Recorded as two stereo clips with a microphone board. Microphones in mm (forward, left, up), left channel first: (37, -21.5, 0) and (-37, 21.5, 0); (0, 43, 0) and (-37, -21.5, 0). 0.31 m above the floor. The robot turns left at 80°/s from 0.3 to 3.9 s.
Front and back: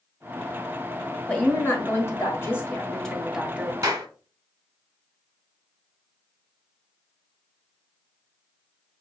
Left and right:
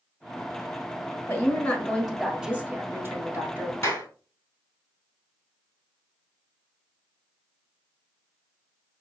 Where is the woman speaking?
35° left, 1.5 m; by 3.7 s 160° right, 1.5 m.